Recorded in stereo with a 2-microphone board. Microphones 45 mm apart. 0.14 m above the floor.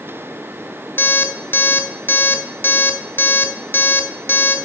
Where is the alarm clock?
55° left (ahead or behind), 0.7 m.